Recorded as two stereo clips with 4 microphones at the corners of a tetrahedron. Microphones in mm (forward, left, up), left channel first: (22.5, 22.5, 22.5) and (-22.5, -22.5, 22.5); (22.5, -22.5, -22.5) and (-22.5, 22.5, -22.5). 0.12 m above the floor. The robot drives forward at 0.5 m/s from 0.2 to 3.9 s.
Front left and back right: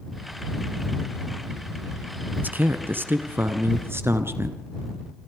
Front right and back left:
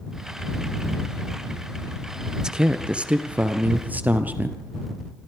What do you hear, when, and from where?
2.4 s a man speaking: 155° right, 1.4 m; by 4.5 s 170° right, 1.9 m